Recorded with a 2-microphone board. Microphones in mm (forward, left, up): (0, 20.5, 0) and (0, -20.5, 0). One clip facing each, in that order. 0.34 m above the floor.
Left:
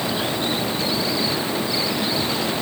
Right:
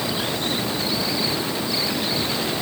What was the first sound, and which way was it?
Only background noise.